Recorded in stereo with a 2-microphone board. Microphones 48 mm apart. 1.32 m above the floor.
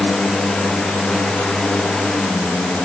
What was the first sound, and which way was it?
Only background noise.